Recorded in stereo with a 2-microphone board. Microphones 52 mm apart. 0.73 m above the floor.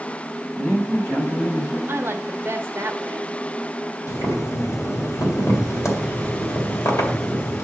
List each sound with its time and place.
0.6 s a man speaking: 60° left (ahead or behind), 3 m; by 1.8 s 50° left (ahead or behind), 4 m
1.9 s a woman speaking: 50° right (ahead or behind), 1.0 m
4.1 s boiling: 80° left, 2 m